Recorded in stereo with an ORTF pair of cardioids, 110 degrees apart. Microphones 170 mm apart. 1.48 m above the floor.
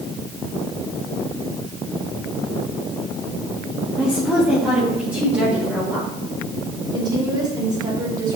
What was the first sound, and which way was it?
A woman speaking, 5° right.